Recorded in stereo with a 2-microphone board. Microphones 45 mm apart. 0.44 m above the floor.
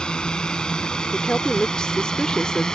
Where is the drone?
20° left (ahead or behind); by 2.8 s 15° left (ahead or behind).